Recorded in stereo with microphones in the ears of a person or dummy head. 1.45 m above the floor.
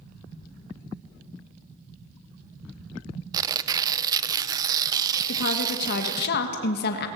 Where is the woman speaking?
60° left (ahead or behind), 1.5 m.